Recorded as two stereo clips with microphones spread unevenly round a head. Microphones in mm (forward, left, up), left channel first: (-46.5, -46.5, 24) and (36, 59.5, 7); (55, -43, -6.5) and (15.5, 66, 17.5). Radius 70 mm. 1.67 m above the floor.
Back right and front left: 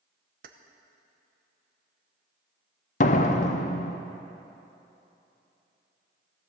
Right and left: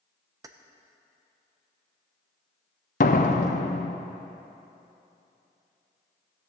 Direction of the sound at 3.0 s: 105° right.